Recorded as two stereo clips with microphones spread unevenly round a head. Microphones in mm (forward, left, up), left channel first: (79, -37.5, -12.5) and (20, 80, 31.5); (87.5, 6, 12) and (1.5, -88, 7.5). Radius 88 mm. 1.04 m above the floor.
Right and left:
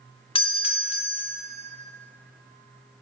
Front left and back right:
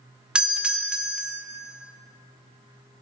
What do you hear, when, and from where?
0.3 s a doorbell: 50° right, 0.9 m